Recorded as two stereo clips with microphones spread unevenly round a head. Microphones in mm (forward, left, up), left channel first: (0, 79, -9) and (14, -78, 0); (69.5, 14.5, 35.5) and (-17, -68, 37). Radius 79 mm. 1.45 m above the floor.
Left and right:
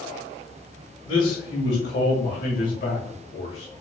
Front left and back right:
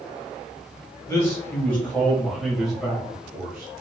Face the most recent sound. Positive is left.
turn(degrees=155)